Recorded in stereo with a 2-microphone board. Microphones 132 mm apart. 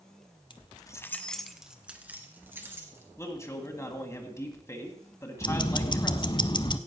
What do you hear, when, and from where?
0.5 s keys jangling: 35° left (ahead or behind), 0.9 m; by 3.0 s 20° right (ahead or behind), 2.5 m
3.2 s a man speaking: 20° left (ahead or behind), 1.8 m
5.4 s ticking: 35° left (ahead or behind), 0.6 m